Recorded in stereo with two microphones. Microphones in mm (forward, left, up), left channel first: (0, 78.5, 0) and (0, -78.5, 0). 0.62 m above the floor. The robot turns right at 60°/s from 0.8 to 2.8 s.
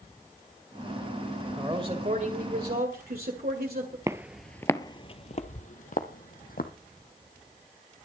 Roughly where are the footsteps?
Right.